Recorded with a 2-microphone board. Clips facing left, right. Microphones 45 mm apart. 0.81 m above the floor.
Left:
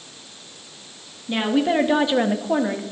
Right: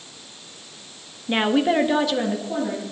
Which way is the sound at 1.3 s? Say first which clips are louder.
Right 1 dB; 30° right (ahead or behind).